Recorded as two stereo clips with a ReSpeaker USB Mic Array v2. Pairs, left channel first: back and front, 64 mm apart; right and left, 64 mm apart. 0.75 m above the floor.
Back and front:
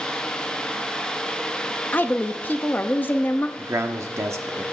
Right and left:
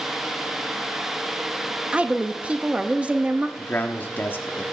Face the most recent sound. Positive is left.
turn(degrees=-35)